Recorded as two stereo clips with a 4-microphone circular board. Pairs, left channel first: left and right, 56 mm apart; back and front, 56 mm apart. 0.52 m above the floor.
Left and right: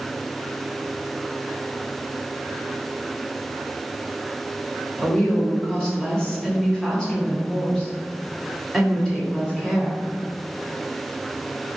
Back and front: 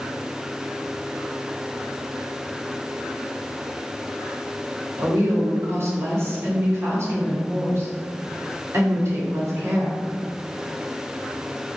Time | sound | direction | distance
5.0 | a woman speaking | 15° left | 1.6 m